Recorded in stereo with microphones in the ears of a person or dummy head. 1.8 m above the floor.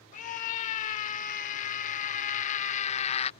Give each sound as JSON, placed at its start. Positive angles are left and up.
{"t": 0.1, "sound": "a scream", "side_deg": 45}